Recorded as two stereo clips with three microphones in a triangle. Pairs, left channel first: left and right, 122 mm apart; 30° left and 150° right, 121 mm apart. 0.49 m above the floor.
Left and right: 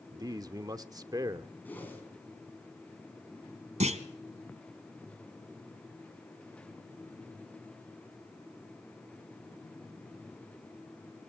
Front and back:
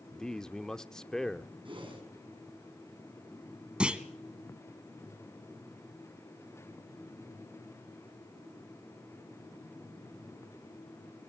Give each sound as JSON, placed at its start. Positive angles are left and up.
{"t": 0.1, "sound": "a man speaking", "azimuth_deg": -55, "distance_m": 0.8}
{"t": 1.6, "sound": "a whoosh", "azimuth_deg": 165, "distance_m": 6.0}
{"t": 3.8, "sound": "a clunk", "azimuth_deg": -65, "distance_m": 1.6}